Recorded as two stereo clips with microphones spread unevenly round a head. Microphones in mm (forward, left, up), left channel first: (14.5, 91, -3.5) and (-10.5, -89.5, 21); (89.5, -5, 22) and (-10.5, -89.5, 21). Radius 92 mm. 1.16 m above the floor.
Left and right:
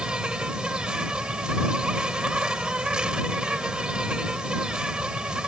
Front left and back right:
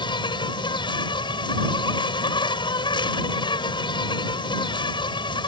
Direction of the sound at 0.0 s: 15° right.